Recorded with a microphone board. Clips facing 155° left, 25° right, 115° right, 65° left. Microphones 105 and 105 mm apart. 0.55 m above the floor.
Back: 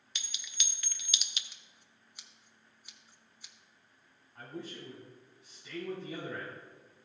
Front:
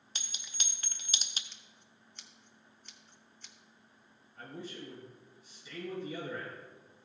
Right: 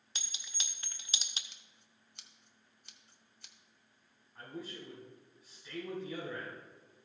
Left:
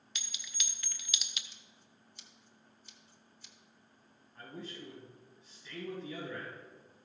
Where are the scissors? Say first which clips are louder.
Front 2 dB, left 4 dB; 125° right, 1.0 m.